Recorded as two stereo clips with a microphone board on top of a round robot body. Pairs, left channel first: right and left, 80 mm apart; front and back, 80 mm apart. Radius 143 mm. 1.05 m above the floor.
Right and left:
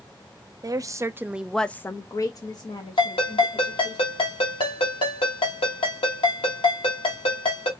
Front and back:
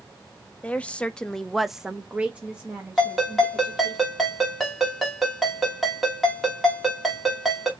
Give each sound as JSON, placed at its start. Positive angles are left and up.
{"t": 0.6, "sound": "a woman speaking", "azimuth_deg": 70, "distance_m": 0.7}
{"t": 3.0, "sound": "a ringtone", "azimuth_deg": -90, "distance_m": 1.0}